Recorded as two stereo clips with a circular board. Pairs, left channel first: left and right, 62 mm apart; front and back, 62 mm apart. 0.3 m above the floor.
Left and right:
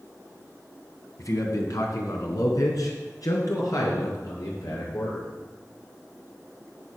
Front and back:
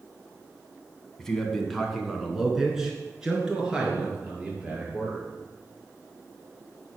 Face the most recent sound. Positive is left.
turn(degrees=110)